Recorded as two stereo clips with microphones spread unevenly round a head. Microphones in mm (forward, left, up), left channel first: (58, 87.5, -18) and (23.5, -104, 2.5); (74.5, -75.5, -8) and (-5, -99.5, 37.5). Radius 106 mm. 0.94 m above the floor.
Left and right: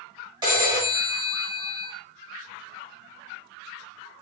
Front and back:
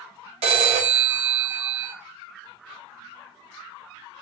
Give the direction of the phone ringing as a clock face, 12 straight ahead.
6 o'clock.